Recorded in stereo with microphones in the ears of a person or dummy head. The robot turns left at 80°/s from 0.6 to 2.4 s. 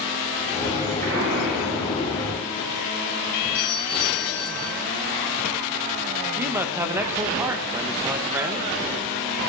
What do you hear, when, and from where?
1.0 s an explosion: 115° right, 4 m; by 2.7 s 135° left, 4 m
3.5 s a doorbell: 10° right (ahead or behind), 8.5 m
6.4 s a man speaking: 20° right (ahead or behind), 1.2 m